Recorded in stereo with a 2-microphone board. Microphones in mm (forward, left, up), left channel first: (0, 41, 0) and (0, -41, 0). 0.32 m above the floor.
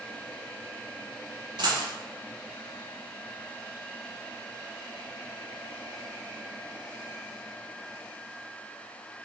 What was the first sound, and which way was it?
A dropped coin, 70° right (ahead or behind).